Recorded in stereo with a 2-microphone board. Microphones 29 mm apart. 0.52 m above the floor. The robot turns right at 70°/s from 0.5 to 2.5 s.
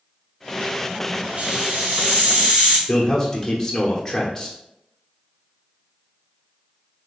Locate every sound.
1.4 s a hiss: 125° right, 1.3 m; by 2.8 s 45° right, 1.3 m
2.9 s a man speaking: 20° left (ahead or behind), 1.1 m